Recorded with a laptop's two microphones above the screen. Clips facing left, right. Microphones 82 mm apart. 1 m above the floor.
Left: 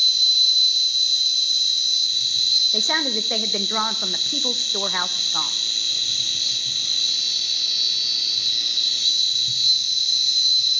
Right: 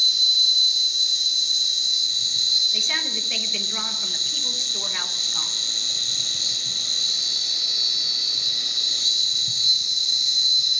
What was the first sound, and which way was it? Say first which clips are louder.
An insect: left 1 dB; 25° right (ahead or behind).